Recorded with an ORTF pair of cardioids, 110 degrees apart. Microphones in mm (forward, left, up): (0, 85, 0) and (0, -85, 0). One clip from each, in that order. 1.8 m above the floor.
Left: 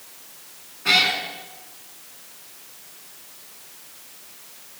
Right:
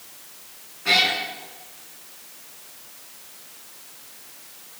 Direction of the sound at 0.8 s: 25° left.